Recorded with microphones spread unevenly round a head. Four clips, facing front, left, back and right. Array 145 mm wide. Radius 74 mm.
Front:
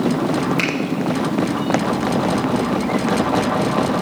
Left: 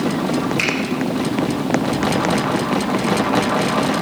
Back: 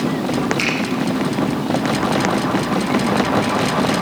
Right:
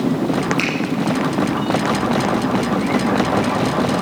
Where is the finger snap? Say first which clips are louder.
Right 1 dB, front 1 dB; 15° right, 3.5 m.